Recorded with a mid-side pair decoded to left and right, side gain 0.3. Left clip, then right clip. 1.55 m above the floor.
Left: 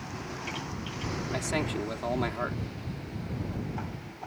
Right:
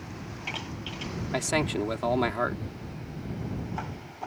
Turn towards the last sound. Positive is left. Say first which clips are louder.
# right 5 dB
turn(degrees=-55)